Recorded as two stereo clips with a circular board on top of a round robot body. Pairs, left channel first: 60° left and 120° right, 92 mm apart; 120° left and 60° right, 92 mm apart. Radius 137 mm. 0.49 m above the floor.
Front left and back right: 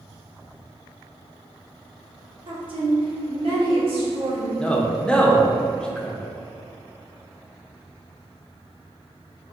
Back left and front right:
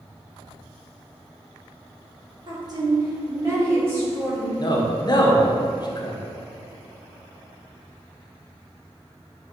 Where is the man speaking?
135° left, 0.8 m.